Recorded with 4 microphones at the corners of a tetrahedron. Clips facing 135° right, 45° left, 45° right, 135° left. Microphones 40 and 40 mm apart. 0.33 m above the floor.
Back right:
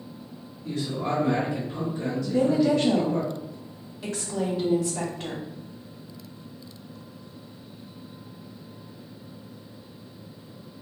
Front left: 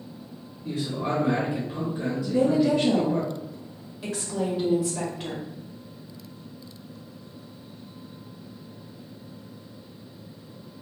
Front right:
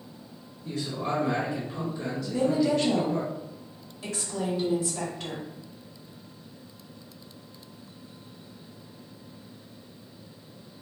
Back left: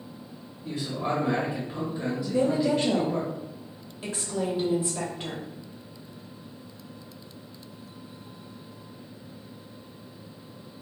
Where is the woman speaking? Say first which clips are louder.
Even, even; 115° left, 1.4 m.